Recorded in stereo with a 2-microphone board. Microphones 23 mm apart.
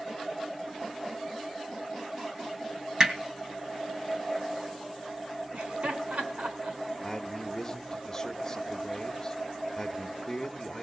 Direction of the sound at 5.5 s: 80° right.